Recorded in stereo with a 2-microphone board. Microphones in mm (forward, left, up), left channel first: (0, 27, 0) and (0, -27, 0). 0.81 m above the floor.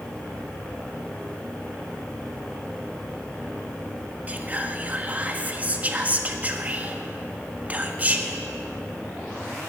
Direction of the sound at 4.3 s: 25° right (ahead or behind).